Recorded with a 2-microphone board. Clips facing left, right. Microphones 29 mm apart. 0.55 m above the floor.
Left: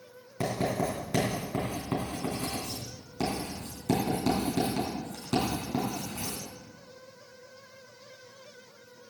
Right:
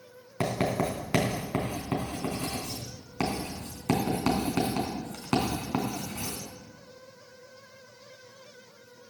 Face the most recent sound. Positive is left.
turn(degrees=-80)